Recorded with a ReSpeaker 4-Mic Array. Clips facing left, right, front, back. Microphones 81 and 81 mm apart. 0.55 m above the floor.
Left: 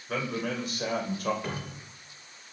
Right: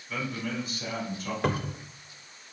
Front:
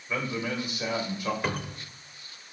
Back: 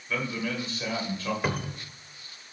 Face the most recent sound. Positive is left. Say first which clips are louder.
# right 7 dB, back 1 dB
turn(degrees=-95)